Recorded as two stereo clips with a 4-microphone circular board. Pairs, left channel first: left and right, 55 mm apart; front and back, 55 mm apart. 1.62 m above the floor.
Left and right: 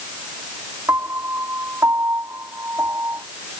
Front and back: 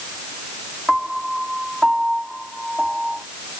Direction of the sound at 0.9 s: 100° right.